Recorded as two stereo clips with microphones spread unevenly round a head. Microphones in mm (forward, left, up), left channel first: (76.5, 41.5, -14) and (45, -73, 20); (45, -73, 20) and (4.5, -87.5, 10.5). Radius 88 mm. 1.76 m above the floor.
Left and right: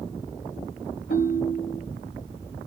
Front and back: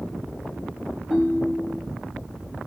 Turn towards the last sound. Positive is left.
turn(degrees=115)